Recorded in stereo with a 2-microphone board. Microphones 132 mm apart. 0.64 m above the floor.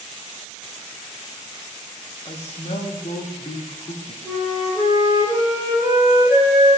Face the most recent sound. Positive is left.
turn(degrees=-25)  # may be behind; listen again after turning